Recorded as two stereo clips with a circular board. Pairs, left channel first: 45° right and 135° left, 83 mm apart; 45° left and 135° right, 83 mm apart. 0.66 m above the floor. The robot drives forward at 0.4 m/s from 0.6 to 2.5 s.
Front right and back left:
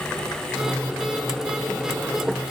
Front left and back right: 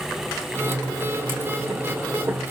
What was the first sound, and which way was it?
Only background noise.